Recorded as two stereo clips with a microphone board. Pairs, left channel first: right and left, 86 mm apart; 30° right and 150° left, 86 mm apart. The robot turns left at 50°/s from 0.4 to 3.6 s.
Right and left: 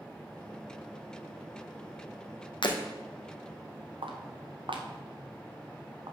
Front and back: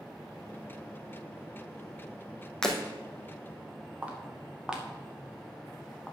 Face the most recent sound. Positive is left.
turn(degrees=50)